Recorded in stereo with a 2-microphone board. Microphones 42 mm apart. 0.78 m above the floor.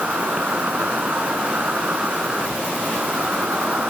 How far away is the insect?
About 4 m.